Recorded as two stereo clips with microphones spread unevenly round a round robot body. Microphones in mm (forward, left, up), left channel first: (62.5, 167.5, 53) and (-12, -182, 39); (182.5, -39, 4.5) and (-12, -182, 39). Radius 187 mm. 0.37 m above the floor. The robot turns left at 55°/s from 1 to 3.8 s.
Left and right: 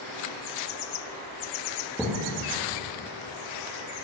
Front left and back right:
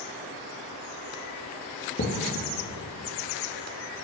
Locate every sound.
2.0 s a thud: 15° right, 2.5 m; by 2.1 s 25° right, 2.5 m